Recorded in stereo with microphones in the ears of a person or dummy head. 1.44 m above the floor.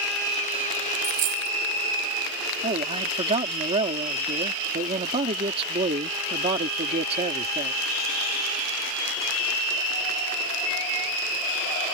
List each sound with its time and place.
1.0 s a dropped coin: 60° right (ahead or behind)
2.6 s a man speaking: 35° right (ahead or behind)